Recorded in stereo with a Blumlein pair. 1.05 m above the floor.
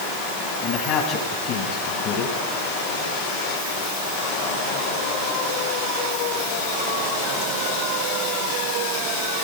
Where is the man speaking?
35° left, 9 m.